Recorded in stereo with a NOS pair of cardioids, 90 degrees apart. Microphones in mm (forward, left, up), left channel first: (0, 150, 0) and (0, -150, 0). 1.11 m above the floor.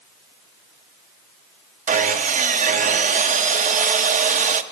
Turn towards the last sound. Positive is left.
turn(degrees=-25)